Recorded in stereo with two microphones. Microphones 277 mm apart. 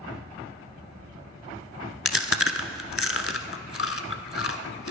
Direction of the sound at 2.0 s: 50° left (ahead or behind).